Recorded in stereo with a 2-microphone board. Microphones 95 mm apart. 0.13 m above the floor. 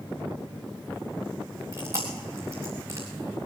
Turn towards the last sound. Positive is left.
turn(degrees=-35)  # may be behind; listen again after turning